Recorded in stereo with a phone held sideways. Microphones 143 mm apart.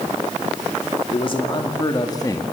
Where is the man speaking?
40° left (ahead or behind), 2.5 m; by 2.4 s 25° left (ahead or behind), 2 m.